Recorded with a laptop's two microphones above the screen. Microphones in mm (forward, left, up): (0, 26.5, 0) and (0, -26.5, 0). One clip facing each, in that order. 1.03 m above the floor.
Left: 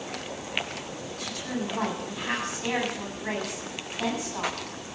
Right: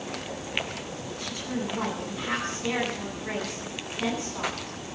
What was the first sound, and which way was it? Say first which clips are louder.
A woman speaking: even; 70° left (ahead or behind).